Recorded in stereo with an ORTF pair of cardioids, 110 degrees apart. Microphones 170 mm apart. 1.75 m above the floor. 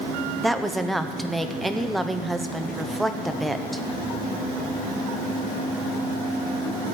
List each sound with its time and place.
0.4 s a woman speaking: straight ahead, 1.0 m